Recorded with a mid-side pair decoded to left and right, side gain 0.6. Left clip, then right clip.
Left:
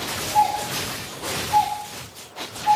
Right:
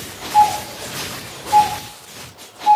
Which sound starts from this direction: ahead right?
A doorbell, at 0.3 s.